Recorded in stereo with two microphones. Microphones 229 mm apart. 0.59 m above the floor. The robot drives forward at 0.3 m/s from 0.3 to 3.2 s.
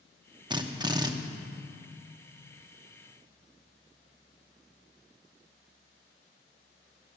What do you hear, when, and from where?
0.5 s a drill: 20° right (ahead or behind), 0.8 m